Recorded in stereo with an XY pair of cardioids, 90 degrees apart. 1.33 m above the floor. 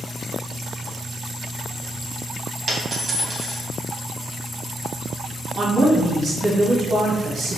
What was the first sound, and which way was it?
A dropped coin, 40° right.